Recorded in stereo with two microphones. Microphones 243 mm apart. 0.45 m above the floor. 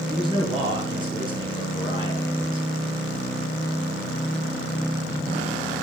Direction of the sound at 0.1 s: 20° right (ahead or behind).